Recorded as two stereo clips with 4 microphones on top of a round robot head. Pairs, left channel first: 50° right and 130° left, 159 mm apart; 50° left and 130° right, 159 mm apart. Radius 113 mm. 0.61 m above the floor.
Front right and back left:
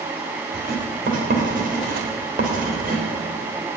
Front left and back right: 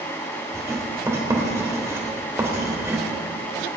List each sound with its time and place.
0.5 s writing: 160° left, 3 m